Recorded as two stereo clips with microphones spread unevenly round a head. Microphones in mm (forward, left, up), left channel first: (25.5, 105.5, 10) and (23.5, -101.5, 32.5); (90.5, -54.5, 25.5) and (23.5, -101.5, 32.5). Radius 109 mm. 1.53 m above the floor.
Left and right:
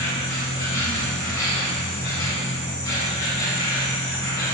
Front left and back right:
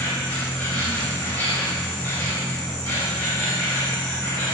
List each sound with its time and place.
0.0 s an insect: 55° left, 1.0 m